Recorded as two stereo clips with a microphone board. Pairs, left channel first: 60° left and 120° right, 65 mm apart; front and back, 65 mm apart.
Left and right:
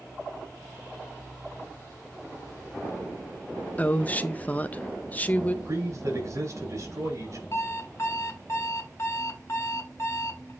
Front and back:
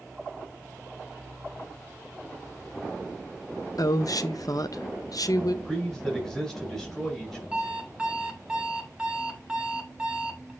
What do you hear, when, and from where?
3.8 s a woman speaking: 5° right, 0.7 m
5.7 s a man speaking: 85° right, 5 m
7.5 s an alarm clock: 105° left, 1.3 m